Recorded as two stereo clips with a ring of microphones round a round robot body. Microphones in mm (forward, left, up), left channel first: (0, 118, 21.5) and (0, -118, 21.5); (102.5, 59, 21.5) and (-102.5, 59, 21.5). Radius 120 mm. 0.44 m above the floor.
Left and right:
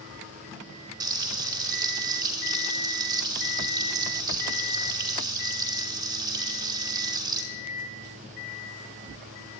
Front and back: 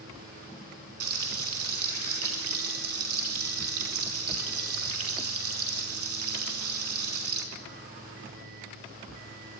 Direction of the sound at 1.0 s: 165° right.